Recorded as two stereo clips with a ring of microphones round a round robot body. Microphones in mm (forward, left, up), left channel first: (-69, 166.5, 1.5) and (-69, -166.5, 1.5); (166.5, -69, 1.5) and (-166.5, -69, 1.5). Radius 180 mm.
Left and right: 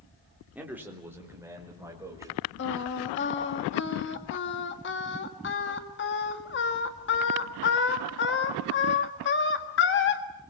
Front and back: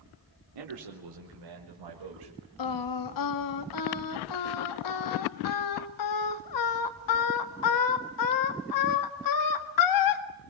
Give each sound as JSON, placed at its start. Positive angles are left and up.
{"t": 0.6, "sound": "a man speaking", "azimuth_deg": -175, "distance_m": 3.0}
{"t": 2.6, "sound": "singing", "azimuth_deg": 30, "distance_m": 1.6}